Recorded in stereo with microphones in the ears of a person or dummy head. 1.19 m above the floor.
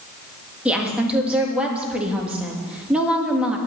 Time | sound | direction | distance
0.7 | a woman speaking | 5° right (ahead or behind) | 1.8 m